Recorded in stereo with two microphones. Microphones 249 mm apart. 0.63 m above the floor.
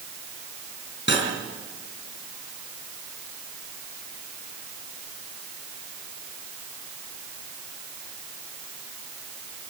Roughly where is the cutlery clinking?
Left.